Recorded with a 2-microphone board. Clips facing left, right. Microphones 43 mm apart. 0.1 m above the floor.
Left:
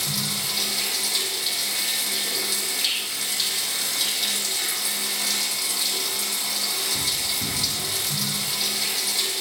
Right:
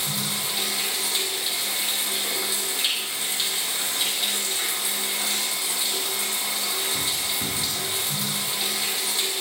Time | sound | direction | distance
0.0 | running water | 25° right (ahead or behind) | 4.5 m